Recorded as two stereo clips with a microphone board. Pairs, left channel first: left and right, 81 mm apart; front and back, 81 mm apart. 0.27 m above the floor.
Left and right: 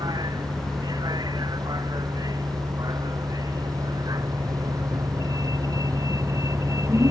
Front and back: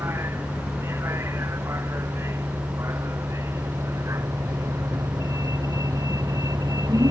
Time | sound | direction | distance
0.0 | a vehicle | 120° right | ?